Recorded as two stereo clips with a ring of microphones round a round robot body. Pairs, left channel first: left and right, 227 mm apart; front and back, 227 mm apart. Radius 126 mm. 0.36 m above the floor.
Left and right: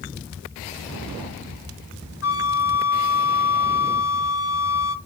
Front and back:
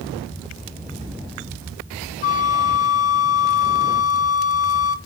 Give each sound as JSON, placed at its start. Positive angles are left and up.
{"t": 2.2, "sound": "a flute", "azimuth_deg": 55, "distance_m": 0.7}